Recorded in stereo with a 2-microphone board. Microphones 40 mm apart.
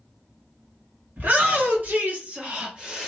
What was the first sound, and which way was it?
A shout, 50° right (ahead or behind).